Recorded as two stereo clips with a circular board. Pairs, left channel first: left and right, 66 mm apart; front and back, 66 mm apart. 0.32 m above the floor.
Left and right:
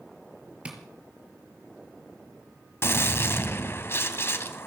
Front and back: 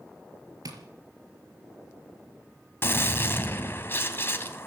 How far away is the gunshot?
About 1.8 m.